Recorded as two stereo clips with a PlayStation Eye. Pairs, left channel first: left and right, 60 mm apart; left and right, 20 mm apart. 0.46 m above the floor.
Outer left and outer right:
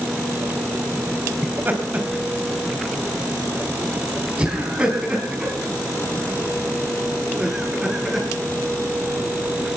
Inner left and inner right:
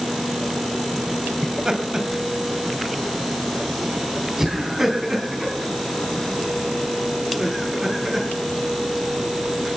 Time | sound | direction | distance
1.4 | laughter | 35° right (ahead or behind) | 3 m